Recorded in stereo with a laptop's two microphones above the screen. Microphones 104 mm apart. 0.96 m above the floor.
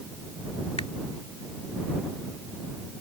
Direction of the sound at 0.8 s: 75° left (ahead or behind).